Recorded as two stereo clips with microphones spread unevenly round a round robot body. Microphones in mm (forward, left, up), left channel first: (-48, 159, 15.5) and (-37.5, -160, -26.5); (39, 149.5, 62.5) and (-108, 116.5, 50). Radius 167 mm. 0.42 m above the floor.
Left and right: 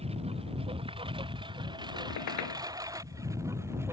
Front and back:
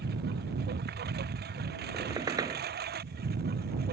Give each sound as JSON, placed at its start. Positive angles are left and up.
{"t": 0.0, "sound": "a lawn mower", "azimuth_deg": -160}
{"t": 1.9, "sound": "a squeak", "azimuth_deg": 125}